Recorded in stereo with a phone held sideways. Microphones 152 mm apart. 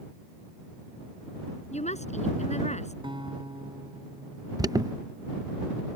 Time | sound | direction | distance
1.7 | a woman speaking | 50° left (ahead or behind) | ?
3.0 | a guitar | 30° right (ahead or behind) | ?
4.6 | an alarm | 25° right (ahead or behind) | ?